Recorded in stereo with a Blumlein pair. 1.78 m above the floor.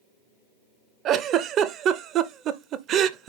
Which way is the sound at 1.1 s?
30° right.